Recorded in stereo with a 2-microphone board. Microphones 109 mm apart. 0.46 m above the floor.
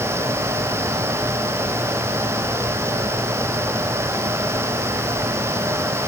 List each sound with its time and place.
Only background noise.